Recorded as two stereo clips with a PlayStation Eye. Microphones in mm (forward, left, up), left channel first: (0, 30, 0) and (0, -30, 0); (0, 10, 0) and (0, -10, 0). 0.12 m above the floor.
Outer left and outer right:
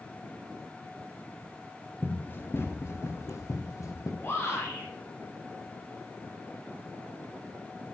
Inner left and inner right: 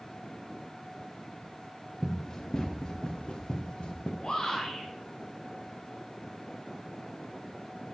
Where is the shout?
45° left (ahead or behind), 3 m.